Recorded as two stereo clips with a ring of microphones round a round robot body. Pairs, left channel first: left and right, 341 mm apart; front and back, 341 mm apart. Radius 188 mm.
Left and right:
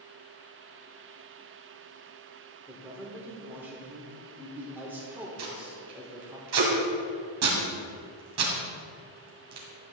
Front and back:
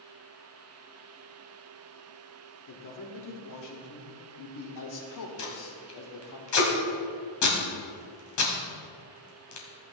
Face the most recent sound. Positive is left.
turn(degrees=-40)